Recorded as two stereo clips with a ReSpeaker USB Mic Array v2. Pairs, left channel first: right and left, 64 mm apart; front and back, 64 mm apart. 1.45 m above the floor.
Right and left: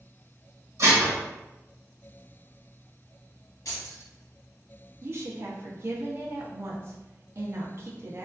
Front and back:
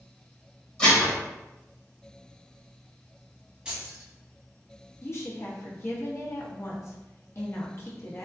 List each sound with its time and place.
0.8 s dishes clattering: 70° left, 1.1 m
3.6 s keys jangling: 105° right, 1.5 m
5.0 s a woman speaking: 45° left, 0.5 m